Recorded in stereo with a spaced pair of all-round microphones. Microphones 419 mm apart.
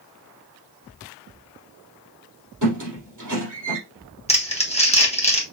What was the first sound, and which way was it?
A squeak, 45° right (ahead or behind).